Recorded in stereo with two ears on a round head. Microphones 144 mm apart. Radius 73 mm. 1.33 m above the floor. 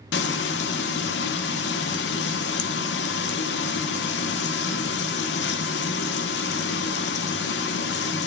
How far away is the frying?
About 0.7 m.